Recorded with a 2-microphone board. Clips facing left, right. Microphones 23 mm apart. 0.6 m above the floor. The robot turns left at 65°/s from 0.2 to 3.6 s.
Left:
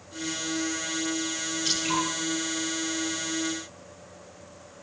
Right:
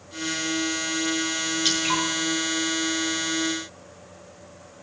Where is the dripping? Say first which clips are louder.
Right 3 dB; 55° right (ahead or behind), 8.5 m; by 2.0 s 30° right (ahead or behind), 8.5 m.